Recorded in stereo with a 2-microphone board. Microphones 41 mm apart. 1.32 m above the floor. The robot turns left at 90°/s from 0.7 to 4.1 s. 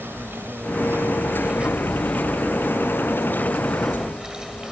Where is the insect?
70° right; by 4.7 s 15° right.